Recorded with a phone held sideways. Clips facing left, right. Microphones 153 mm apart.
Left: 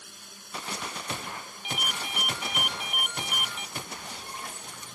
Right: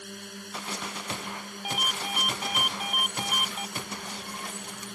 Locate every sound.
0.0 s a drone: 65° right (ahead or behind)
1.6 s a ringtone: 40° right (ahead or behind)